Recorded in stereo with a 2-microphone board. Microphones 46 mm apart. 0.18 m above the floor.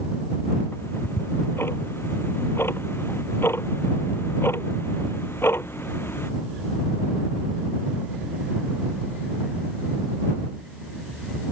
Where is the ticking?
55° left (ahead or behind).